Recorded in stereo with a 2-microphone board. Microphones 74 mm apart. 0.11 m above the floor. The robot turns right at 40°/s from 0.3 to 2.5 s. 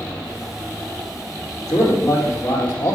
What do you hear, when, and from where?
1.7 s a man speaking: 110° left, 3 m; by 3.0 s 145° left, 3 m